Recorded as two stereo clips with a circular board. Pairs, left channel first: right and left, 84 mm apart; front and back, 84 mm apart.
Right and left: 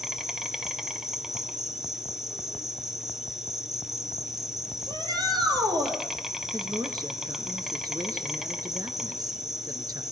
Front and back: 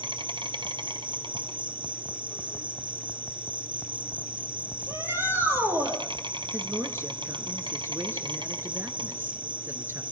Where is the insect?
175° left, 1.7 m.